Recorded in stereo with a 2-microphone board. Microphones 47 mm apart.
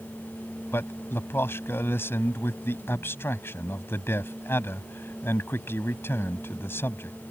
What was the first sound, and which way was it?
A man speaking, 55° left (ahead or behind).